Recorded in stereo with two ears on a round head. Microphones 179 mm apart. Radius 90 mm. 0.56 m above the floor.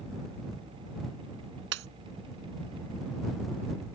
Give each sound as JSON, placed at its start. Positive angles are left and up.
{"t": 1.7, "sound": "breaking glass", "side_deg": -65}